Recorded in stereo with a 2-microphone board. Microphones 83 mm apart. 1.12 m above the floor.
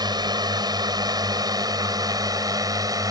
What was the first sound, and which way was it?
A drone, 55° right (ahead or behind).